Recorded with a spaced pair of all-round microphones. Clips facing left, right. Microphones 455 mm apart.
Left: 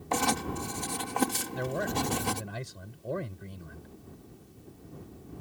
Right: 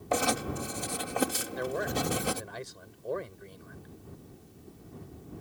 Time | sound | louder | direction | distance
0.1 | writing | right 1 dB | 15° left (ahead or behind) | ?
1.5 | a man speaking | even | 45° left (ahead or behind) | ?